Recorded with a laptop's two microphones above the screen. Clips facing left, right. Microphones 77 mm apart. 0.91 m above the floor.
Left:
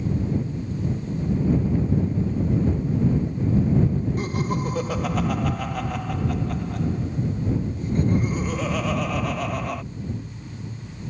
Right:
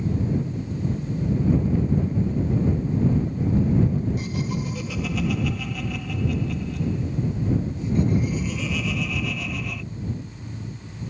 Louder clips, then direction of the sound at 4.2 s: Left 3 dB; 45° left (ahead or behind).